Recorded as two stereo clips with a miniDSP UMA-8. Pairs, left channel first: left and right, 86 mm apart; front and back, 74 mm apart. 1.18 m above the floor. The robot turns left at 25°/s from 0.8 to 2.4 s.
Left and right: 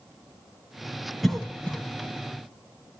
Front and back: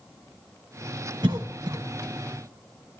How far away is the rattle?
No rattle in this recording.